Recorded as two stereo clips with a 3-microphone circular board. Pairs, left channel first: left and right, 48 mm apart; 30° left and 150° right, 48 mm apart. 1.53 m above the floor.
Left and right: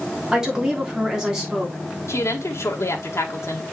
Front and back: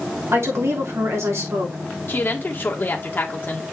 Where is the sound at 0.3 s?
165° right, 3 m.